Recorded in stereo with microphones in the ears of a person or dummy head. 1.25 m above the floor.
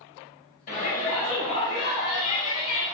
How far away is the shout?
About 1.5 m.